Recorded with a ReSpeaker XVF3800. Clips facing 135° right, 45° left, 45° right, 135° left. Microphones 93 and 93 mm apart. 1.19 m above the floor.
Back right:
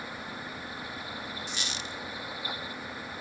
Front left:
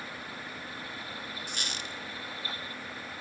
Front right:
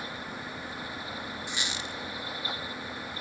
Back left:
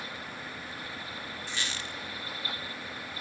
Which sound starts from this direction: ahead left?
A squeak, at 1.5 s.